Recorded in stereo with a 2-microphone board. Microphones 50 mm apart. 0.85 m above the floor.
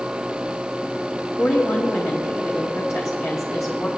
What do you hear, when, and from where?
1.4 s a woman speaking: 65° left (ahead or behind), 1.4 m